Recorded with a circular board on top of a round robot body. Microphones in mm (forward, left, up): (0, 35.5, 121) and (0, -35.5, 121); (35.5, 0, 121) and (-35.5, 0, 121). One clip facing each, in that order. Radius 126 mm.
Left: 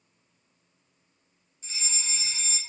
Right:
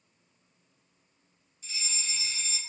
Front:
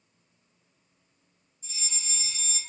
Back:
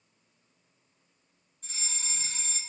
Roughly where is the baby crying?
No baby crying in this recording.